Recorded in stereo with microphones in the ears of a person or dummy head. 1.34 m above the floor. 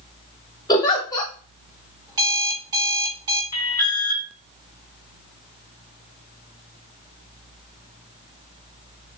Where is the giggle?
20° left (ahead or behind), 1.8 m.